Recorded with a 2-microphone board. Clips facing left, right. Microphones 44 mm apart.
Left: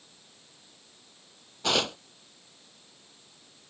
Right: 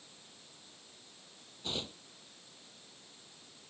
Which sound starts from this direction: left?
Tearing paper, at 1.6 s.